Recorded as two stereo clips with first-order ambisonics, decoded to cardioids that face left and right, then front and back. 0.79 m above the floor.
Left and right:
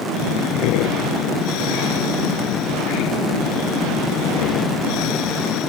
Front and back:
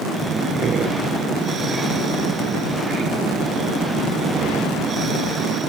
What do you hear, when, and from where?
0.1 s breathing: 115° left